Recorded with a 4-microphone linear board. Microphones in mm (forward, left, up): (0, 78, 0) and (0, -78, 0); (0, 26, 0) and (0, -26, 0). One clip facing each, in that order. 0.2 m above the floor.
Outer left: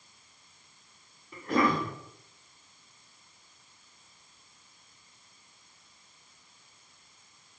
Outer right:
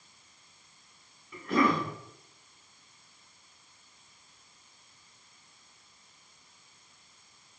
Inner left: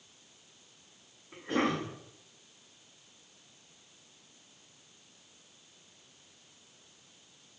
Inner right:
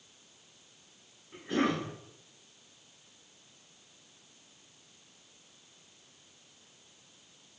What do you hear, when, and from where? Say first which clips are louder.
1.3 s a cough: even, even; 40° left (ahead or behind), 1.8 m